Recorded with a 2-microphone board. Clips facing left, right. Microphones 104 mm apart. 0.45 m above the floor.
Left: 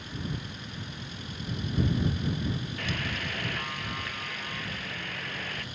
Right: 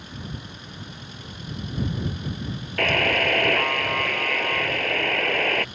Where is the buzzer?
80° right.